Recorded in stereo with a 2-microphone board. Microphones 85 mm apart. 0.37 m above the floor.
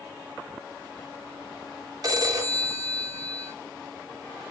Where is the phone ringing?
40° right (ahead or behind), 0.7 m.